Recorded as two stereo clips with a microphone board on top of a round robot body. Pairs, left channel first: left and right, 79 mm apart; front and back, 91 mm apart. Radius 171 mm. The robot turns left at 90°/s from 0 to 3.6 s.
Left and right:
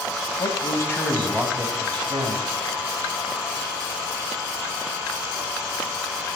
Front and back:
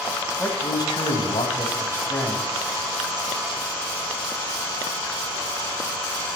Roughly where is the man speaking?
Left.